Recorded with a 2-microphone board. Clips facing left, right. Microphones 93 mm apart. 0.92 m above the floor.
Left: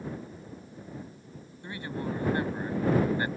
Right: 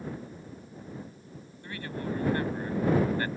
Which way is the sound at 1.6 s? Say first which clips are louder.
Left 1 dB; 20° left (ahead or behind).